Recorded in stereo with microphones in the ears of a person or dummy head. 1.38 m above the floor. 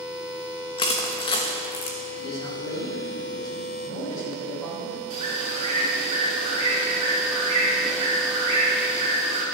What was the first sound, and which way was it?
Crushing, 30° left (ahead or behind).